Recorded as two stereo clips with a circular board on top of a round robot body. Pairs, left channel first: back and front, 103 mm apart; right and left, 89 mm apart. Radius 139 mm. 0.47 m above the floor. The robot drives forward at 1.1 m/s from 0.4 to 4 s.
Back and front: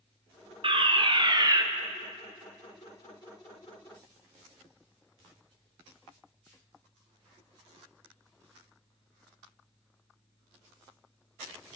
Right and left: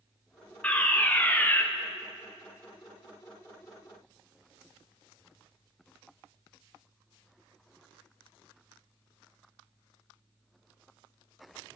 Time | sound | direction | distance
0.6 | a fire alarm | 15° right | 3 m